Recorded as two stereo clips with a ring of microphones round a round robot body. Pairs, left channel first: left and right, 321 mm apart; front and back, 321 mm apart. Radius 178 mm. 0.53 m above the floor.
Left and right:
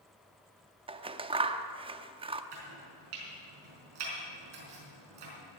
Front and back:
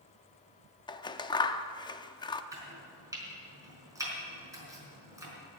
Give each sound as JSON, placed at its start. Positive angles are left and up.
{"t": 0.9, "sound": "scissors", "azimuth_deg": -50, "distance_m": 0.6}
{"t": 2.5, "sound": "chopping", "azimuth_deg": -100, "distance_m": 4.5}